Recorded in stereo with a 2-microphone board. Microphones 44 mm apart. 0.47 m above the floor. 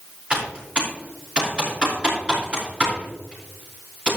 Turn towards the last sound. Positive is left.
turn(degrees=-30)  # may be behind; listen again after turning